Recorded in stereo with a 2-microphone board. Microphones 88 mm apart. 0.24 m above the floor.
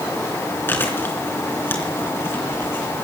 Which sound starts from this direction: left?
Chewing, at 0.7 s.